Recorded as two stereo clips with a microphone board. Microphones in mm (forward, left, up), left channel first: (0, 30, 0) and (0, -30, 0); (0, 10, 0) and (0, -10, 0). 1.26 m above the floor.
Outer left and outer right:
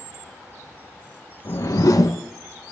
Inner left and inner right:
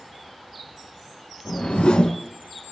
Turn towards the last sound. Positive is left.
turn(degrees=65)  # may be behind; listen again after turning